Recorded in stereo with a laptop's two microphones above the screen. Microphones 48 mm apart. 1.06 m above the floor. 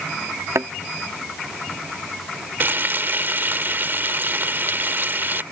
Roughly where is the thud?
Right.